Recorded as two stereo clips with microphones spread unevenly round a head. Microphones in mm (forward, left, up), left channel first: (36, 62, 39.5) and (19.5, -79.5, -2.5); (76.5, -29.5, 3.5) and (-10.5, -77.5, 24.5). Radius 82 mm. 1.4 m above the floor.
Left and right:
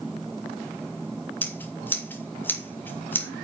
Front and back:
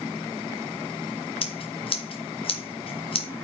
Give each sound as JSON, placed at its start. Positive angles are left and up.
{"t": 1.4, "sound": "scissors", "azimuth_deg": 5, "distance_m": 2.0}